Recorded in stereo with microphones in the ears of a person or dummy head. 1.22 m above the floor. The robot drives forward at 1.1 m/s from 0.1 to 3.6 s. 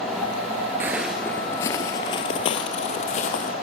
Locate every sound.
0.8 s footsteps: 15° right (ahead or behind), 1.2 m; by 3.5 s 45° left (ahead or behind), 3 m